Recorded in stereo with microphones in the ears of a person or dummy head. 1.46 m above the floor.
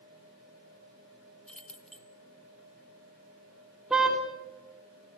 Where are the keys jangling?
5° left (ahead or behind), 1.4 m.